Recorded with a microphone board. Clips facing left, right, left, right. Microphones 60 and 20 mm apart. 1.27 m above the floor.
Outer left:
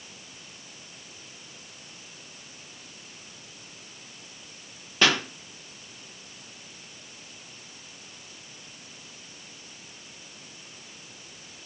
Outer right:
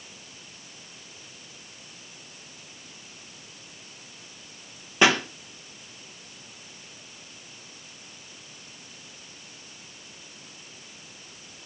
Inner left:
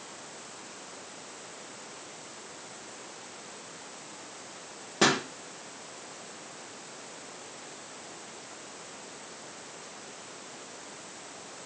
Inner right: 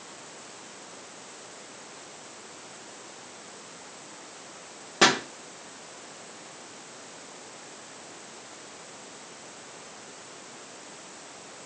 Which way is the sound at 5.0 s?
20° right (ahead or behind).